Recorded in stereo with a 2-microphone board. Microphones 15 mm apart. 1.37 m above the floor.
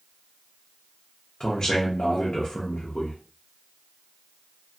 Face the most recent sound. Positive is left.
turn(degrees=70)  # may be behind; listen again after turning